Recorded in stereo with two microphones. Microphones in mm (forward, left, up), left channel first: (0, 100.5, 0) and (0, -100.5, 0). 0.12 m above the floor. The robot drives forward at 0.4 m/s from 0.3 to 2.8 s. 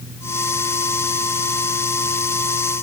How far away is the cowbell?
No cowbell in this recording.